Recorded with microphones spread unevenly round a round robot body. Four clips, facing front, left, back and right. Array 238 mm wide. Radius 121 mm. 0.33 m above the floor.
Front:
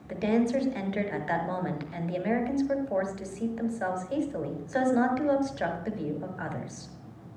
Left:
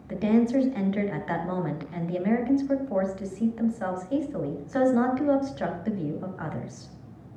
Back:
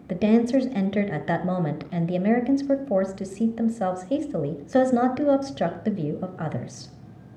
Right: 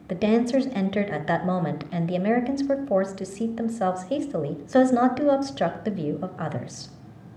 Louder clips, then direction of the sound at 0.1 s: Right 1 dB, back 6 dB; 145° right.